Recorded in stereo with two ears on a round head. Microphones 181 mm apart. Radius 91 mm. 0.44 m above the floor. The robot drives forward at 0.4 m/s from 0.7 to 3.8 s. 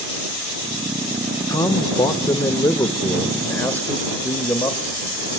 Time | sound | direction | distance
1.5 | a man speaking | 20° left (ahead or behind) | 0.7 m